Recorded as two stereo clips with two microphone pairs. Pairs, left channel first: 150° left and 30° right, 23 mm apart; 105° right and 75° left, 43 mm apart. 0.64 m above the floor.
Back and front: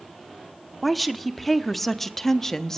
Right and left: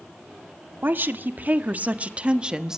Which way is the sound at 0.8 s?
60° left.